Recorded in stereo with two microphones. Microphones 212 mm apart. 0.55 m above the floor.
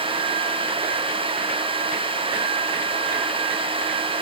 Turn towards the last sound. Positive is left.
No sound to turn to.